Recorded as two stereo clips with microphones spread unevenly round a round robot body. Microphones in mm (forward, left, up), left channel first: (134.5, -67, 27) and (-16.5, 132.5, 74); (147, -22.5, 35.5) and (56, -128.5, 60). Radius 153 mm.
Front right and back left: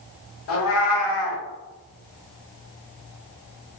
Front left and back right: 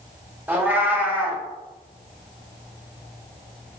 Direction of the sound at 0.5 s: 50° right.